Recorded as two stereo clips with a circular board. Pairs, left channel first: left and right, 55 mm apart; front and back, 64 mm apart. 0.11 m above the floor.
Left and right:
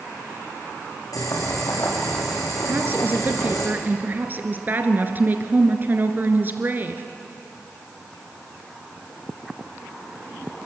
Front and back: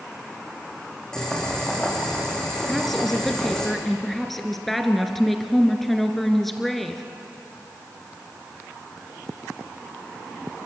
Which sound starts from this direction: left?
Boiling, at 1.1 s.